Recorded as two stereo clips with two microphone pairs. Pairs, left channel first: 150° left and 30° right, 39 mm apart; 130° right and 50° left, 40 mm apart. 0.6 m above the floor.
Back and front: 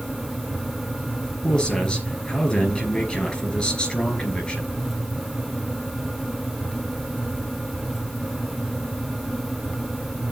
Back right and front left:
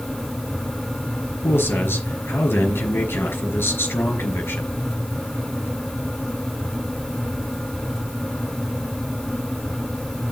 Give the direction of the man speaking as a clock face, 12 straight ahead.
5 o'clock.